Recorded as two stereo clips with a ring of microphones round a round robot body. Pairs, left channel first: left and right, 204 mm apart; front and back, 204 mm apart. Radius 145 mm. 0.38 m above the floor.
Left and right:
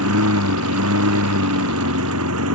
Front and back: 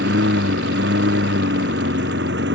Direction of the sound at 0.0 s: 125° right.